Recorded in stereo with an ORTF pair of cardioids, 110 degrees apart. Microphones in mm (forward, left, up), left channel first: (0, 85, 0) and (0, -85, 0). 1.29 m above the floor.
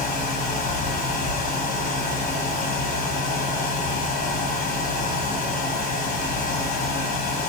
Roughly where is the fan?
Ahead left.